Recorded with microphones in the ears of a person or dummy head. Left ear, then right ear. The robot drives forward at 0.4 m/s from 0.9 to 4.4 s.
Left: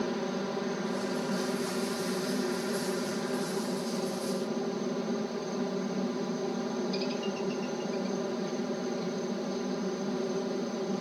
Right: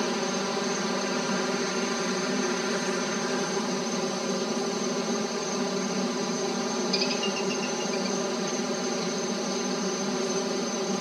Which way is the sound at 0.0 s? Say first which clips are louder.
Right 5 dB; 65° right (ahead or behind).